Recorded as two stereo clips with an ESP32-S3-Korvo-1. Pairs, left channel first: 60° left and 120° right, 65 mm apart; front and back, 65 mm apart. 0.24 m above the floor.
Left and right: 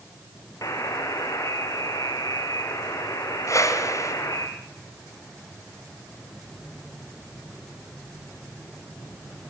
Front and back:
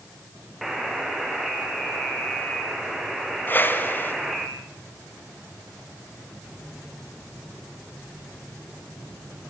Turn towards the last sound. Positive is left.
turn(degrees=50)